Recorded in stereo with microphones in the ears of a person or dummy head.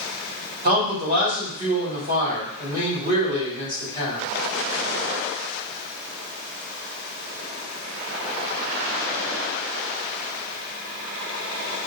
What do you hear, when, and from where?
0.6 s a man speaking: 40° right (ahead or behind), 2.5 m